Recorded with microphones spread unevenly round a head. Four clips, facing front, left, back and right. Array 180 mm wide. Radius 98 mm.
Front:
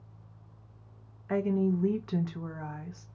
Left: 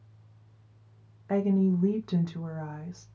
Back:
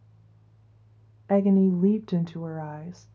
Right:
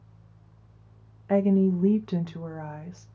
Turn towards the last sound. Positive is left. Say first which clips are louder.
# right 3 dB, back 7 dB
turn(degrees=-165)